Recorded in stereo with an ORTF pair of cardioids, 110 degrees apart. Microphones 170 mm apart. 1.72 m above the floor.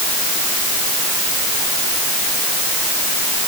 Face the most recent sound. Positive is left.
No sound to turn to.